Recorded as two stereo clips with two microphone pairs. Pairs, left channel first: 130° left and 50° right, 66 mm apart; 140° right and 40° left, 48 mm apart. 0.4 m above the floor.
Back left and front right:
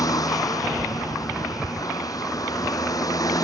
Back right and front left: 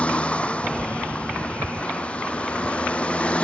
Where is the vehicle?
155° left.